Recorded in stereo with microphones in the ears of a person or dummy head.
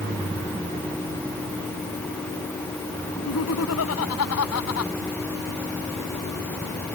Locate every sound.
3.2 s laughter: 80° left